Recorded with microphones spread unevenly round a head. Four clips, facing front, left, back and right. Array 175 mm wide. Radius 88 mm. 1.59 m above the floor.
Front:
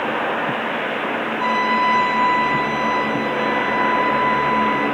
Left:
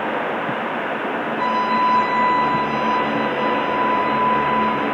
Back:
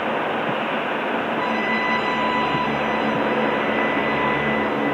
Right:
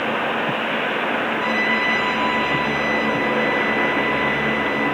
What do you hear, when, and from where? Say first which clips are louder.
1.4 s a trumpet: left 3 dB, front 4 dB; 75° left, 10 m